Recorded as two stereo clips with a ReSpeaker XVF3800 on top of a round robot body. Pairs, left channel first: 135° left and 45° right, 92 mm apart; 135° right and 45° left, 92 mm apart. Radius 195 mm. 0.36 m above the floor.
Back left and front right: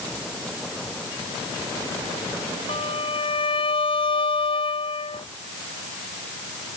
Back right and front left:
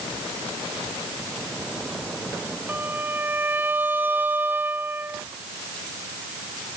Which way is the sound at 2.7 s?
115° left.